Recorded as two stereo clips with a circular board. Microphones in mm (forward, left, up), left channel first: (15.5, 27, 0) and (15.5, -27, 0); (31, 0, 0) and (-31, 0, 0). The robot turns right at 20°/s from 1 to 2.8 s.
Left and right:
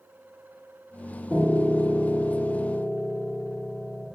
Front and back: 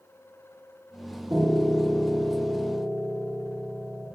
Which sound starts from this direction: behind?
A piano, at 1.3 s.